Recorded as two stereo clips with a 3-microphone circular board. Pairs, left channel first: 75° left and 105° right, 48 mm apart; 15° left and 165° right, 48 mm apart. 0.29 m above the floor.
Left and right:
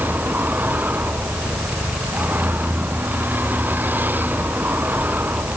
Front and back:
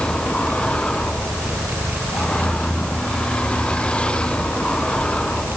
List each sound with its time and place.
0.0 s a vehicle: 55° right